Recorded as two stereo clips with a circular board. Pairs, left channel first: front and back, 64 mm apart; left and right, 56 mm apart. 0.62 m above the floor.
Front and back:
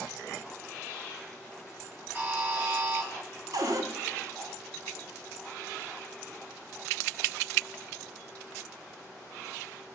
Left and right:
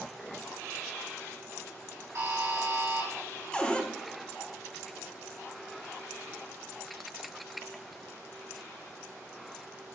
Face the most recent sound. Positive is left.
turn(degrees=160)